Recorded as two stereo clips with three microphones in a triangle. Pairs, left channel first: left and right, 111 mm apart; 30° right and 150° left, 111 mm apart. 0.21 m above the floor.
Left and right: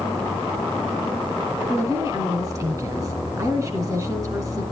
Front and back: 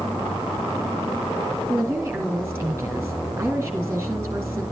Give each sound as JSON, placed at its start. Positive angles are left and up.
{"t": 1.7, "sound": "a woman speaking", "azimuth_deg": -145, "distance_m": 3.5}